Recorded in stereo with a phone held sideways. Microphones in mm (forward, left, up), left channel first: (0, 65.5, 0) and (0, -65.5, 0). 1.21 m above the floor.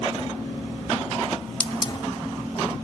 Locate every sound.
1.6 s a hiss: 35° left (ahead or behind)